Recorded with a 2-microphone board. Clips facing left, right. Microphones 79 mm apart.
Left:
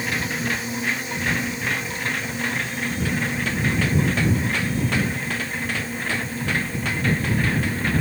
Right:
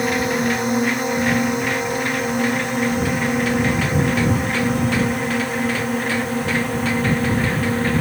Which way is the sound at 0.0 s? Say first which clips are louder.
Right 7 dB; 60° right (ahead or behind).